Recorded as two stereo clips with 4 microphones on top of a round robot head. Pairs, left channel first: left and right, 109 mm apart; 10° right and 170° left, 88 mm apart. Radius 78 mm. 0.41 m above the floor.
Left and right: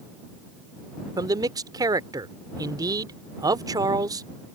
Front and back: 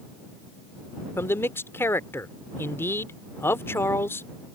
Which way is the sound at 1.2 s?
60° right.